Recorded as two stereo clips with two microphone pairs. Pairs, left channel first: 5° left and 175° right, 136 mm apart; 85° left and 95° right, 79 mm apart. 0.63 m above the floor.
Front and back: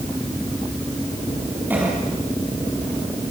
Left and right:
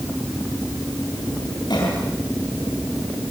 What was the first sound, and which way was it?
A cough, 110° left.